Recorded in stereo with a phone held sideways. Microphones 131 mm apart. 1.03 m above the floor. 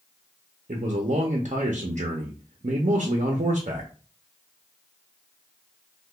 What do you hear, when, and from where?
0.7 s a man speaking: 65° right (ahead or behind), 0.5 m